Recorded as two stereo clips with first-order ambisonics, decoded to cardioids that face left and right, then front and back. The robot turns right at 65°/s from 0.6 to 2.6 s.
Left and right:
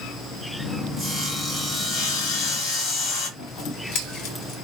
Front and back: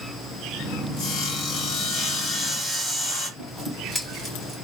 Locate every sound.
1.0 s sawing: 30° right, 1.7 m; by 3.3 s 80° left, 1.7 m
3.4 s scissors: 90° left, 1.6 m